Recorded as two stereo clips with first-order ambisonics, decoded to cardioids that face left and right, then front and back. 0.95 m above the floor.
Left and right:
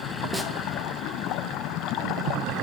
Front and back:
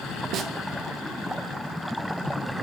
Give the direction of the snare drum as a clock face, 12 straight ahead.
6 o'clock.